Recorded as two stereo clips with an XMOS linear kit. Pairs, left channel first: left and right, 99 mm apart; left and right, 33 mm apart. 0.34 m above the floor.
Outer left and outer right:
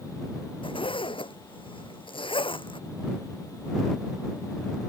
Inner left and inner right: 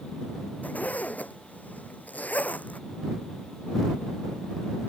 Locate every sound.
0.6 s a zipper: 60° left (ahead or behind)